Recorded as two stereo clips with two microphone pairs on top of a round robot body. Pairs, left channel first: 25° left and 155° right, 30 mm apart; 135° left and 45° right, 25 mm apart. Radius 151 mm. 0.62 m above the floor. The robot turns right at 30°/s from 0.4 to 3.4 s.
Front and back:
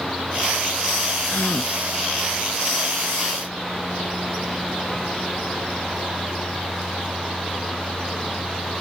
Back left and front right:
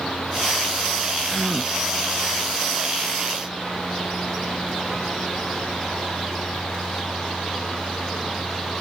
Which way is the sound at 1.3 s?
50° left.